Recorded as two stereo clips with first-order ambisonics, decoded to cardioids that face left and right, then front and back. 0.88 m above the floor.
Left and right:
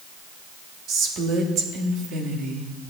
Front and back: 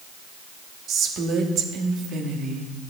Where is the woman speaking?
130° right, 1.6 m.